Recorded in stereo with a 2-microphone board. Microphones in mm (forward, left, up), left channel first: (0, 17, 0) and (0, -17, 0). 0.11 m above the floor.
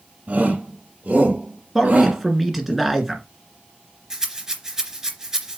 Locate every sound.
0.3 s a shout: 40° right (ahead or behind), 3.5 m
1.8 s a man speaking: 5° right (ahead or behind), 1.7 m
4.1 s a rattle: 15° right (ahead or behind), 2 m